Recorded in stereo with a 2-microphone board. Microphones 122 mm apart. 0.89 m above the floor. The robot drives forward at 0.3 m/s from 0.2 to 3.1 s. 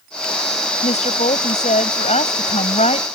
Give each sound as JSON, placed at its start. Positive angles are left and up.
{"t": 0.8, "sound": "a woman speaking", "side_deg": 70}